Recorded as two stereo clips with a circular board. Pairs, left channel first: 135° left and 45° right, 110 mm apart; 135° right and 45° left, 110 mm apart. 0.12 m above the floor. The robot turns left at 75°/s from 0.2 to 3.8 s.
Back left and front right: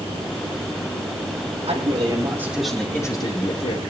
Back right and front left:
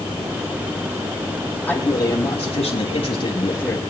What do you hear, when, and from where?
1.6 s a man speaking: 55° right, 4.5 m; by 3.8 s 140° left, 4.5 m